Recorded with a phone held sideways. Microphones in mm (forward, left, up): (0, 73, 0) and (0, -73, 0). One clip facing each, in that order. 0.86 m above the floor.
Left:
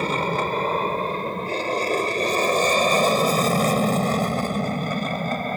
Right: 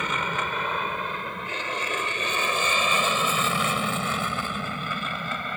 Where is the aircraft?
35° left (ahead or behind); by 5.6 s 40° left (ahead or behind).